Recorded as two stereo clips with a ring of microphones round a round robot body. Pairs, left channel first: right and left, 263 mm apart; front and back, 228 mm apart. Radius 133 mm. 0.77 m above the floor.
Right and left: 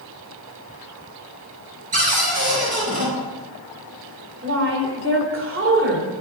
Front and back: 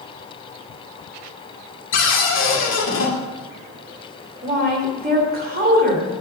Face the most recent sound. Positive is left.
turn(degrees=130)